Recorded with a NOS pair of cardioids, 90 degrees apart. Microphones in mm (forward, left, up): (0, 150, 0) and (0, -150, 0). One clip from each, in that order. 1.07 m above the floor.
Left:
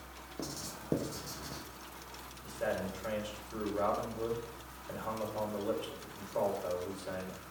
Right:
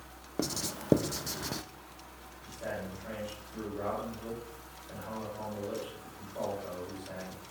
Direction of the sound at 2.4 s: 65° left.